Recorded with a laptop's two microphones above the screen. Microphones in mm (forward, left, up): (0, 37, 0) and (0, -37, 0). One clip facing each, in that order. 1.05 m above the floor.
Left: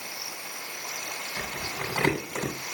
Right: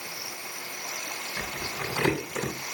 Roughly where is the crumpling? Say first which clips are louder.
Even; left.